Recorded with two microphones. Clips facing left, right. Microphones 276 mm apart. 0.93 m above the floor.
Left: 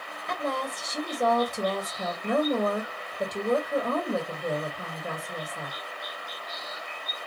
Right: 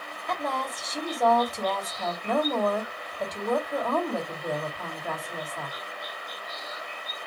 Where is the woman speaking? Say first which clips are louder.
Left 1 dB; 30° left (ahead or behind), 2 m.